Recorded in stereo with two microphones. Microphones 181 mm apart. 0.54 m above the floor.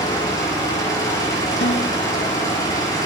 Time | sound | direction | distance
0.0 | an engine running | 20° left (ahead or behind) | 7 m
1.6 | a snare drum | 75° left (ahead or behind) | 3 m